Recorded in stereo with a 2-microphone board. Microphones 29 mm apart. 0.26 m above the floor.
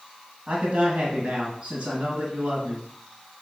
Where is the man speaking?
50° right (ahead or behind), 1.7 m.